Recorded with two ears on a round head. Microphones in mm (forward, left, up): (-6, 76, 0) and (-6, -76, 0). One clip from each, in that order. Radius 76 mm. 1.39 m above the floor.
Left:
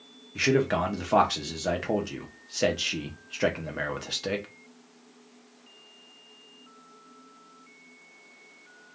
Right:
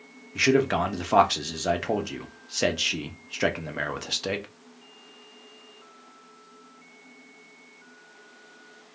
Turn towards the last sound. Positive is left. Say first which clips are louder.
# right 2 dB
turn(degrees=-15)  # may be behind; listen again after turning